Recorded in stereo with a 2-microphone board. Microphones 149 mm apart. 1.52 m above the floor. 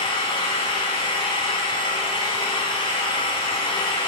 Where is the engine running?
35° left (ahead or behind), 6 m.